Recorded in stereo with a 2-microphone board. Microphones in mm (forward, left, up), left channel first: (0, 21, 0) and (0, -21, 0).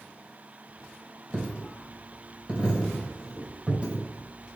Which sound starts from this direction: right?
A dropped coin, at 1.3 s.